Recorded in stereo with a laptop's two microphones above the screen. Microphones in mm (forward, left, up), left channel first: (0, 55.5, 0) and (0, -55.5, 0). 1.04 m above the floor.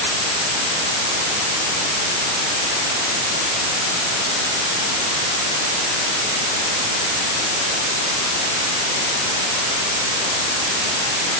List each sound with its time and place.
Only background noise.